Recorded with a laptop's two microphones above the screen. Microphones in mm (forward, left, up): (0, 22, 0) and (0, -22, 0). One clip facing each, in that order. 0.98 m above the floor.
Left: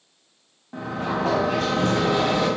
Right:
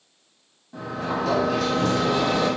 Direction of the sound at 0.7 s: 40° left (ahead or behind).